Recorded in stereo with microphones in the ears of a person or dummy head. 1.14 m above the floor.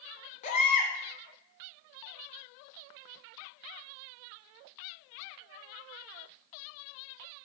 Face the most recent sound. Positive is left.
turn(degrees=40)  # may be behind; listen again after turning